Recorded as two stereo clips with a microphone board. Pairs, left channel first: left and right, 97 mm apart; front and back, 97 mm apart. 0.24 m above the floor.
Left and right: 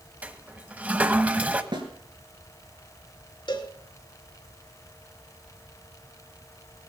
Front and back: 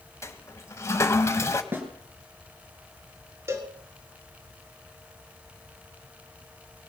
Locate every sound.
0.2 s a toilet flushing: 25° right, 0.9 m
1.7 s a snare drum: 115° right, 3 m
3.5 s a cowbell: 120° left, 1.9 m